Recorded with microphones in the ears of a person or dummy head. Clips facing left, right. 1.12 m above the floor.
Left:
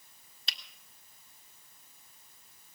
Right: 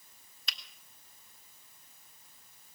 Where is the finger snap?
25° left (ahead or behind), 1.6 m.